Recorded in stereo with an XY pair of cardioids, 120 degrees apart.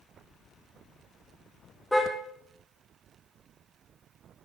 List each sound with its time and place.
1.9 s a car horn: 5° left, 3.5 m